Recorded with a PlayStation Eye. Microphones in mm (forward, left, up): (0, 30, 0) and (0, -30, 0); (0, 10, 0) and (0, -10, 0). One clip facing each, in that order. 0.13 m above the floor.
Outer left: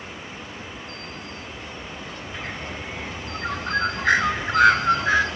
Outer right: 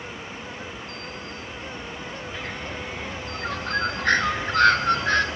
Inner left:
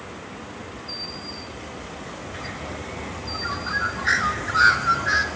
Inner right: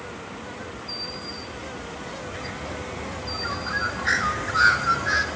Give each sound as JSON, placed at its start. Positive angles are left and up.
{"t": 2.3, "sound": "a bird", "side_deg": 10, "distance_m": 0.9}